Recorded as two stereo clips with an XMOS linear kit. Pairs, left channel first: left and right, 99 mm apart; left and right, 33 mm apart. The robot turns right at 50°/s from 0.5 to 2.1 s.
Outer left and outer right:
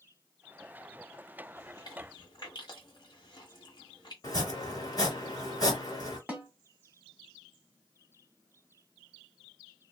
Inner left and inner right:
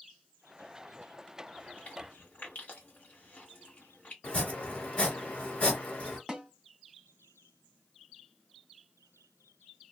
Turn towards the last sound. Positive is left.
turn(degrees=-15)  # may be behind; listen again after turning